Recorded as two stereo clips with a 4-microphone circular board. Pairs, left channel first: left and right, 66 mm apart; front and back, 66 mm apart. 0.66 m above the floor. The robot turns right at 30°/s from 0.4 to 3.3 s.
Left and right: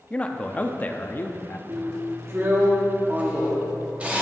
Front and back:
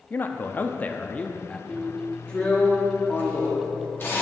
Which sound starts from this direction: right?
A drill, at 1.7 s.